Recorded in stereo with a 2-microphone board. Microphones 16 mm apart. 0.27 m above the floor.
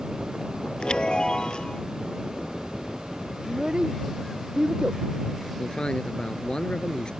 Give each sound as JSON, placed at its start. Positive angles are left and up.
{"t": 0.8, "sound": "a chime", "side_deg": 70}
{"t": 3.5, "sound": "a child speaking", "side_deg": -60}
{"t": 5.6, "sound": "a man speaking", "side_deg": 65}